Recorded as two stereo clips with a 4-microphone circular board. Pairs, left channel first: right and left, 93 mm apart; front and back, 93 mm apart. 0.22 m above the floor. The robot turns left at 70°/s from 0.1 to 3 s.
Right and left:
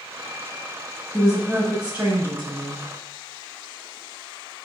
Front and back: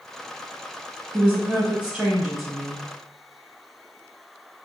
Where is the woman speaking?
Straight behind, 1.0 m; by 2.9 s 60° left, 1.0 m.